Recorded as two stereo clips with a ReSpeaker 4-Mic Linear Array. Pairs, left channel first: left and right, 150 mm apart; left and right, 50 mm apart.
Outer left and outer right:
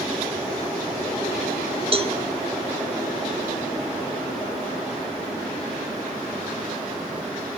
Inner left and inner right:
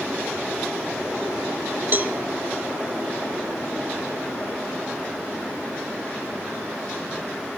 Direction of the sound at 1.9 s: 40° right (ahead or behind).